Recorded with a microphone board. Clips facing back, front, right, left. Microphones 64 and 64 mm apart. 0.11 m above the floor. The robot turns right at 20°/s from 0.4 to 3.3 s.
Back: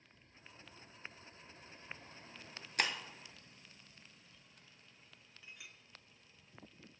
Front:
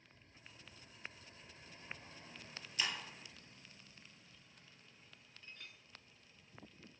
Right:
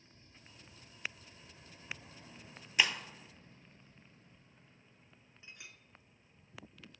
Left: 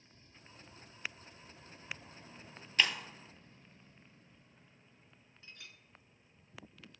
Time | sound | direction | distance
2.8 | breaking glass | 165° right | 0.8 m
5.4 | a clink | 115° right | 0.7 m